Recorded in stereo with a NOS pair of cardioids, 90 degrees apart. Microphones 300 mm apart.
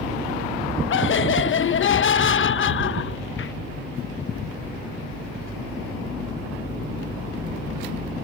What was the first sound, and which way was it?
Laughter, 45° left.